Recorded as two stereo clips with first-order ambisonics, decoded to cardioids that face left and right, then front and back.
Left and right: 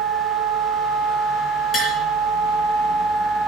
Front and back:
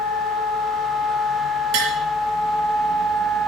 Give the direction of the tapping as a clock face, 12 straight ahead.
7 o'clock.